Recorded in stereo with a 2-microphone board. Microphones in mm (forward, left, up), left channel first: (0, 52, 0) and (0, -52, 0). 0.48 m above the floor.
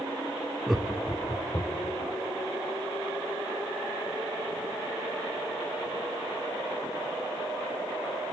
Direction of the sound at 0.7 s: 5° right (ahead or behind).